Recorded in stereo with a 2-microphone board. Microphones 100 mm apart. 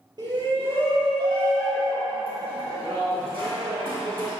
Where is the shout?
40° right (ahead or behind), 3 m; by 4.3 s 60° right (ahead or behind), 9 m.